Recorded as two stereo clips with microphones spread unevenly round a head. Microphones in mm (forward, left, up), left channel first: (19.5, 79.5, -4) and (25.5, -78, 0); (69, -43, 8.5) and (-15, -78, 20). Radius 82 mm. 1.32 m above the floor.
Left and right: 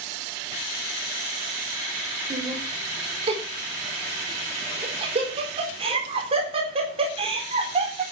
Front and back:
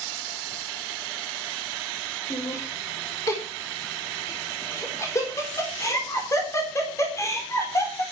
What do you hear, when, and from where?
2.3 s laughter: 35° right, 4 m